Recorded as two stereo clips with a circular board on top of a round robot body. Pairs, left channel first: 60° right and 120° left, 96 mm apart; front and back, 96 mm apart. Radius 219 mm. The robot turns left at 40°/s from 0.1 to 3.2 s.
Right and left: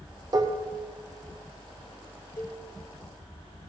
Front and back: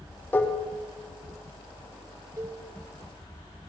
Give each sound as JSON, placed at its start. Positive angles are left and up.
{"t": 0.3, "sound": "dishes clattering", "azimuth_deg": 70, "distance_m": 0.6}
{"t": 2.4, "sound": "a cowbell", "azimuth_deg": -120, "distance_m": 0.8}